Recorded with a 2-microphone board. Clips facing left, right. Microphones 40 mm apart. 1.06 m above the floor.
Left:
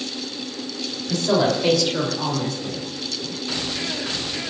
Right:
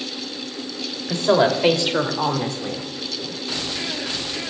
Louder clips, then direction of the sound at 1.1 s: Right 3 dB; 30° right (ahead or behind).